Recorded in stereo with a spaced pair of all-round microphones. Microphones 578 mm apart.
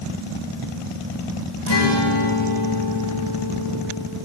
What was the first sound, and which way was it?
A guitar, 45° left (ahead or behind).